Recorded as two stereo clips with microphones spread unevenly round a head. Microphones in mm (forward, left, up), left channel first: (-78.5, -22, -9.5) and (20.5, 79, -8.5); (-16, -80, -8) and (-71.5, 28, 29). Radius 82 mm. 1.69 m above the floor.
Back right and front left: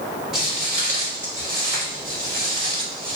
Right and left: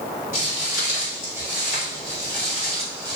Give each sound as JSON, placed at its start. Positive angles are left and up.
{"t": 0.3, "sound": "footsteps", "azimuth_deg": -40, "distance_m": 1.9}